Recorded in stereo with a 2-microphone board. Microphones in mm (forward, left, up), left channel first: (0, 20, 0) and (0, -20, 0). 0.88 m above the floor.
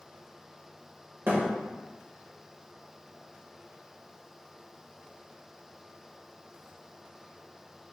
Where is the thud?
55° right (ahead or behind), 1.2 m.